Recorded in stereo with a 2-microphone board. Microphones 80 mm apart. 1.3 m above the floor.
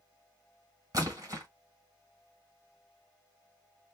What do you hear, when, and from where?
0.9 s a splash: 45° right (ahead or behind), 1.7 m